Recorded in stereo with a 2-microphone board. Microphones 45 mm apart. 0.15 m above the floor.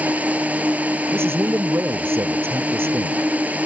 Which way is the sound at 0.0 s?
30° right (ahead or behind).